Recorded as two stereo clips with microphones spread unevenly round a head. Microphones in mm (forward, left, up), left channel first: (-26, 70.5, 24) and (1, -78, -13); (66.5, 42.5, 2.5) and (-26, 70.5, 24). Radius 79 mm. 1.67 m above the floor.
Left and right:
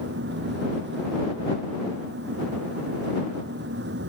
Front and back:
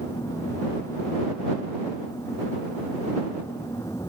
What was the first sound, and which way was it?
A fan, 90° right.